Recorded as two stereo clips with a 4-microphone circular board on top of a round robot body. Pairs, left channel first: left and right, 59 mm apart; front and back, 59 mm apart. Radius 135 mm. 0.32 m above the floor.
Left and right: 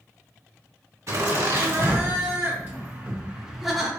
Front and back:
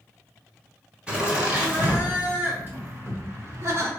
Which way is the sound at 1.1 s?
115° right.